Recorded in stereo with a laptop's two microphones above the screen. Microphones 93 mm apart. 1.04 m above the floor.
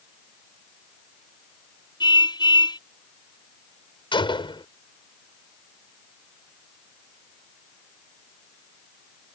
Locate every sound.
2.0 s a car horn: 50° left (ahead or behind)
4.1 s a gunshot: 60° left (ahead or behind)